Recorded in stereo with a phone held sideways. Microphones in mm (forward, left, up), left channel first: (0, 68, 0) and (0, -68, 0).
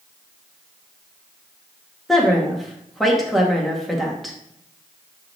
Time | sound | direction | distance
2.1 | a woman speaking | centre (ahead or behind) | 1.9 m